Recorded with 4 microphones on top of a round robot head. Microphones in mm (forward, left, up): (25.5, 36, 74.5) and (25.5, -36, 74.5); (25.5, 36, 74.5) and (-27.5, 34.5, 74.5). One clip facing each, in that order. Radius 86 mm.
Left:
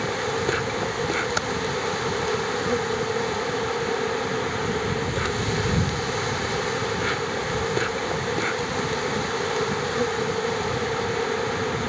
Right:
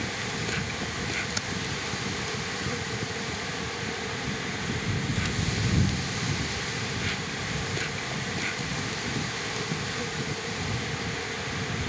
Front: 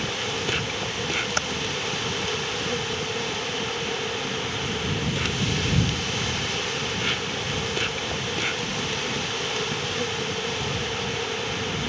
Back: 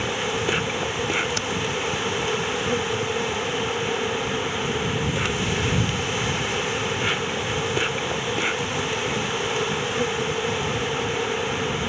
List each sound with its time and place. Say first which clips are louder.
0.0 s an insect: left 8 dB, back 4 dB; 115° left
1.4 s typing on a keyboard: left 8 dB, front 1 dB; 50° left